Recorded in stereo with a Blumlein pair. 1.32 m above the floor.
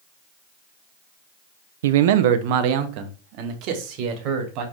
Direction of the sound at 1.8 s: 60° right.